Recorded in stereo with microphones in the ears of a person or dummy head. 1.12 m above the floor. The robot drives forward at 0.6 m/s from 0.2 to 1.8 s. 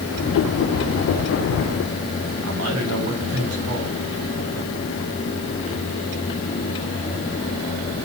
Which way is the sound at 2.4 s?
75° right (ahead or behind).